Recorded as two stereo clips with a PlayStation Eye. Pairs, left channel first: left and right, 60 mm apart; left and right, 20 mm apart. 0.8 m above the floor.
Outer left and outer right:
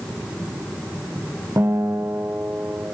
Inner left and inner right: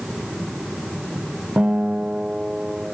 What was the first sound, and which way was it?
A guitar, 55° right (ahead or behind).